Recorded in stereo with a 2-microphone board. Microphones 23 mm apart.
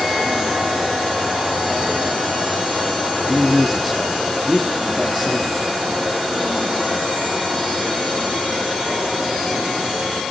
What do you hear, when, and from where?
3.3 s a man speaking: centre (ahead or behind), 4 m